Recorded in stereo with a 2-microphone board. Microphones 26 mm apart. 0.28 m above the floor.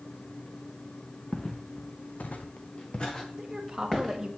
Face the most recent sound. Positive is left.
turn(degrees=-20)  # may be behind; listen again after turning